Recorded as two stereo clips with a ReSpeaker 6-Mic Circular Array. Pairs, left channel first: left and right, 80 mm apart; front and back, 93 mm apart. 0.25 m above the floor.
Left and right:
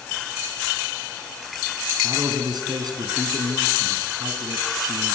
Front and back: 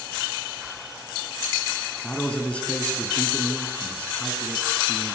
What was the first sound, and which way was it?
A man speaking, 75° right.